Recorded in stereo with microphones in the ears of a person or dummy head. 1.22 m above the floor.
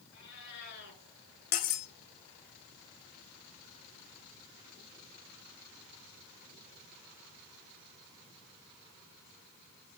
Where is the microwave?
I don't hear a microwave.